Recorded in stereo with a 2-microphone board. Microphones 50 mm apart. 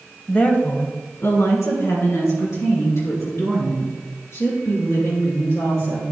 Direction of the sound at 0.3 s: 20° left (ahead or behind).